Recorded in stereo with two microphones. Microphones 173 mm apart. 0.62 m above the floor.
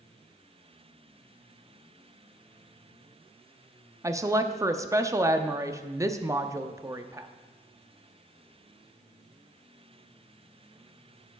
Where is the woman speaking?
20° right (ahead or behind), 0.6 m.